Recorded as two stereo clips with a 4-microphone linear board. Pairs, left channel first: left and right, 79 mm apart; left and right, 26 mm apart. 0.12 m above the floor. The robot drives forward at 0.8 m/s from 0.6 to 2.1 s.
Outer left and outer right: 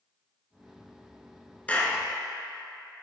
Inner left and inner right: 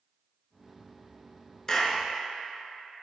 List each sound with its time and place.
1.7 s a clap: 20° left (ahead or behind), 1.0 m